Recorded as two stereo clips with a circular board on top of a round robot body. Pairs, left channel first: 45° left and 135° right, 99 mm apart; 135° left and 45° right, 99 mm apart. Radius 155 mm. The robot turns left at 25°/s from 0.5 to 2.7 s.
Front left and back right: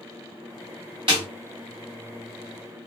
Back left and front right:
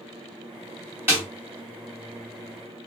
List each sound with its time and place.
1.1 s a snare drum: 110° right, 0.6 m; by 1.2 s 115° right, 0.6 m